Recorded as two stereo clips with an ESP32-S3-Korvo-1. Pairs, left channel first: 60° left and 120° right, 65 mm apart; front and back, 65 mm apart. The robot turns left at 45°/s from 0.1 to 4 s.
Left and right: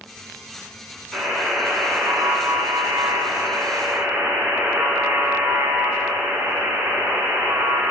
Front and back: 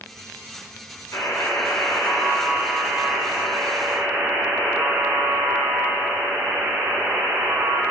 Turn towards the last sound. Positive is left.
turn(degrees=-155)